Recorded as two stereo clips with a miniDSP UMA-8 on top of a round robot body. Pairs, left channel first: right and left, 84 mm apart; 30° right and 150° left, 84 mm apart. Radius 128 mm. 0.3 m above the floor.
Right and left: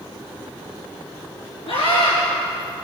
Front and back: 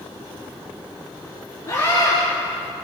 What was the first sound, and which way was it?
A scream, 85° right.